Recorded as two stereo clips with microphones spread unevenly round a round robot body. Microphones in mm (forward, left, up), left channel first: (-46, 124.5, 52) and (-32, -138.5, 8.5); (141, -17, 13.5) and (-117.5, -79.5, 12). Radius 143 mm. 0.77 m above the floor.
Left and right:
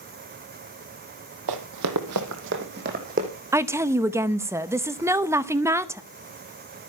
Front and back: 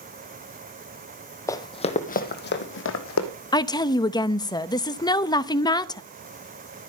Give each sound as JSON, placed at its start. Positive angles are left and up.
{"t": 1.5, "sound": "running footsteps", "azimuth_deg": -65, "distance_m": 1.6}
{"t": 3.5, "sound": "a woman speaking", "azimuth_deg": -45, "distance_m": 0.7}